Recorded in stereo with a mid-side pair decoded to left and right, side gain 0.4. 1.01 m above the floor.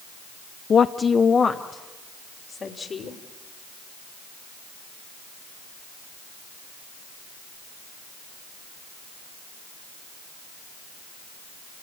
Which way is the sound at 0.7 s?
50° left.